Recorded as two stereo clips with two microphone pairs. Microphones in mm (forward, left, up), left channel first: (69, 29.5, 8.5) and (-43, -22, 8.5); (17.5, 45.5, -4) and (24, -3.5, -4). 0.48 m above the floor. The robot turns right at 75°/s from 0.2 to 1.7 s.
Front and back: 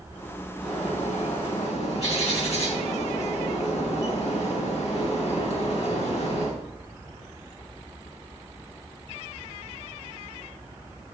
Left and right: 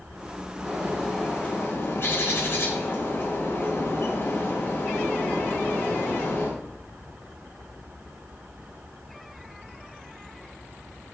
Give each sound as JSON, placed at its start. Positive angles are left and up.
{"t": 0.6, "sound": "a bird", "azimuth_deg": -30, "distance_m": 5.0}